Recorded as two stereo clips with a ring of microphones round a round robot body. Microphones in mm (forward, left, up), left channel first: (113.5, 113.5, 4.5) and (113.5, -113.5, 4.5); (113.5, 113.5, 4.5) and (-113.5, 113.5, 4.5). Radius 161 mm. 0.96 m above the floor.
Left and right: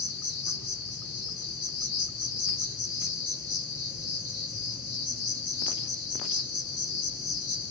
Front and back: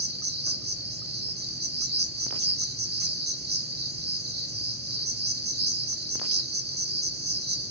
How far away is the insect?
About 1.7 m.